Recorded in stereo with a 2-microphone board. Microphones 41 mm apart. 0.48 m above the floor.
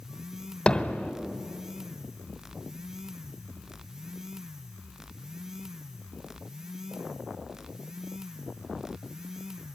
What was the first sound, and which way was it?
Hammering, 25° left (ahead or behind).